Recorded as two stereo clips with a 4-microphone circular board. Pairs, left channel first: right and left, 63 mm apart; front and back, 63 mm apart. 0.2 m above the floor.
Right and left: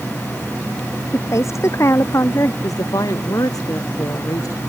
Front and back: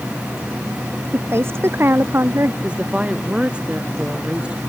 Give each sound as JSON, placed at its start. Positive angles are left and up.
{"t": 1.1, "sound": "a woman speaking", "azimuth_deg": -130}
{"t": 2.6, "sound": "a woman speaking", "azimuth_deg": -105}